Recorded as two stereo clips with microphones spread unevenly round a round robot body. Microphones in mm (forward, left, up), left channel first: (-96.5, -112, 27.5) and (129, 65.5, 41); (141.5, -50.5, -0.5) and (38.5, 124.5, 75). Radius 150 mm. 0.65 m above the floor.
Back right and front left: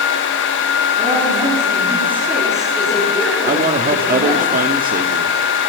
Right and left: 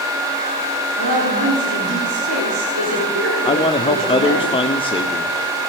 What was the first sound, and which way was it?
A woman speaking, 110° left.